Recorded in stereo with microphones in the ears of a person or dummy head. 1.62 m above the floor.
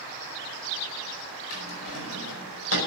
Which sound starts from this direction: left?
A drawer, at 1.5 s.